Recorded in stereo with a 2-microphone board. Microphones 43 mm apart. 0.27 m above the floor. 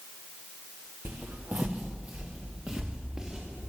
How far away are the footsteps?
About 1.7 m.